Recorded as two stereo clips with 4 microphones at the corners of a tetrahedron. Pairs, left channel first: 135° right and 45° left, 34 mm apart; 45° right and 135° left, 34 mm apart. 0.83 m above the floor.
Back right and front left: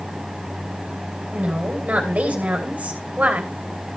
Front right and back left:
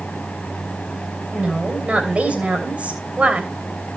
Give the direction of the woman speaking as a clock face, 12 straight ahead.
9 o'clock.